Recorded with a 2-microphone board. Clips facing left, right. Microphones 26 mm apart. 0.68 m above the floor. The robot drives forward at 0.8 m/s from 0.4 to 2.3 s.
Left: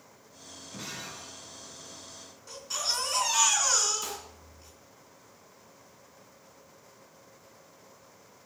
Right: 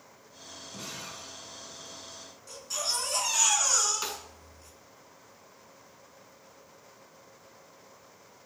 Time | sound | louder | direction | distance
0.7 | breaking glass | left 1 dB | 10° left (ahead or behind) | 3 m
2.5 | a baby crying | left 1 dB | 15° left (ahead or behind) | 4 m
4.0 | a snare drum | right 2 dB | 50° right (ahead or behind) | 1.7 m